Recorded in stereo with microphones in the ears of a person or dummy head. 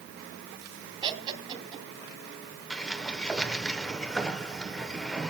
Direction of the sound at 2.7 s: Centre (ahead or behind).